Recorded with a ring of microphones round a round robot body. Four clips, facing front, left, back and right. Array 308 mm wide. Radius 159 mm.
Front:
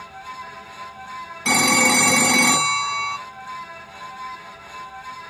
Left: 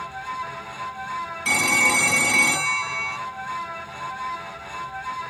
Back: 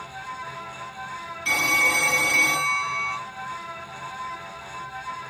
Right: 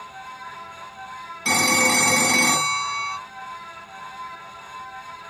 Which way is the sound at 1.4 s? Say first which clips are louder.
Right 3 dB, front 6 dB; 20° right.